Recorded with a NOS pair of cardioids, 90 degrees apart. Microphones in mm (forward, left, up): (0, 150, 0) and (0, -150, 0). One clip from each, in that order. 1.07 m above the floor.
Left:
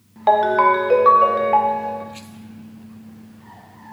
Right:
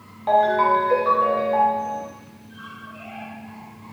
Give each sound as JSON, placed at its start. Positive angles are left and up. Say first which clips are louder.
{"t": 0.3, "sound": "a ringtone", "louder": "left 3 dB", "azimuth_deg": 50, "distance_m": 0.6}